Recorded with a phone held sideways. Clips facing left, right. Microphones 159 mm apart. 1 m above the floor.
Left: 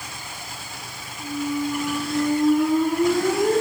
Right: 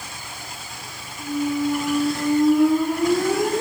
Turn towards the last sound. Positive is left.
turn(degrees=-50)  # may be behind; listen again after turning